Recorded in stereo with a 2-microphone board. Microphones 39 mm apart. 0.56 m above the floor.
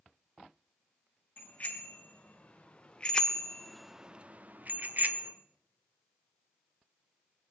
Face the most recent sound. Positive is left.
turn(degrees=-45)  # may be behind; listen again after turning